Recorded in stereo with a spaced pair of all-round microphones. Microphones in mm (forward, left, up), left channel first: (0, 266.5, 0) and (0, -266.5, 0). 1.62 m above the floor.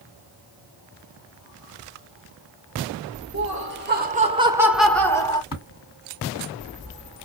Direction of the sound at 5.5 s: 40° left (ahead or behind).